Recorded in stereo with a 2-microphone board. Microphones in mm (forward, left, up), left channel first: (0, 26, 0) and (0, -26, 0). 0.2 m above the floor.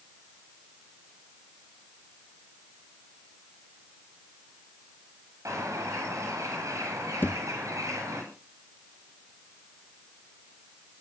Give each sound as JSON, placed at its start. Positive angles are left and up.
{"t": 5.5, "sound": "a bird", "side_deg": -85, "distance_m": 9.5}
{"t": 7.2, "sound": "a thud", "side_deg": 40, "distance_m": 1.6}